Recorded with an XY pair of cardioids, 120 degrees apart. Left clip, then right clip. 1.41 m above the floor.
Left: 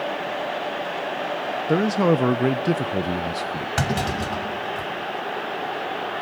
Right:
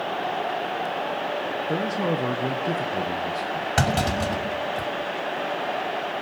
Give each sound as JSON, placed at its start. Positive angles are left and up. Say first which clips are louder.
{"t": 1.7, "sound": "a man speaking", "louder": "left 8 dB", "azimuth_deg": 45, "distance_m": 0.6}
{"t": 3.8, "sound": "a clunk", "louder": "right 2 dB", "azimuth_deg": -20, "distance_m": 6.0}